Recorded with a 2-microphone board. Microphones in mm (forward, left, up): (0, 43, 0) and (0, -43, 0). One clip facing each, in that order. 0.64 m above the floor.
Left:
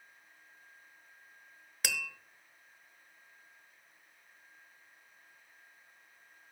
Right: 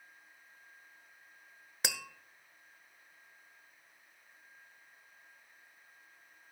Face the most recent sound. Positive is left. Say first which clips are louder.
# left 1 dB
turn(degrees=-25)  # may be behind; listen again after turning